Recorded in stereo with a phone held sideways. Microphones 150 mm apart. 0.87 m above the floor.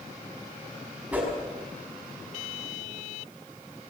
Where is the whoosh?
10° right (ahead or behind), 5.5 m.